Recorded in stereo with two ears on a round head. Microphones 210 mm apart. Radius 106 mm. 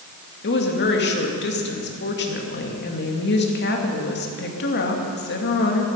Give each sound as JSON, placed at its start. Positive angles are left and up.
{"t": 0.4, "sound": "a woman speaking", "side_deg": 50, "distance_m": 2.5}